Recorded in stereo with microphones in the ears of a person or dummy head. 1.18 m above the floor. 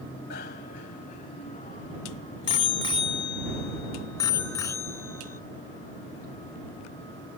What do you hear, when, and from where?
0.3 s a bicycle bell: 55° left (ahead or behind); by 5.4 s 15° left (ahead or behind)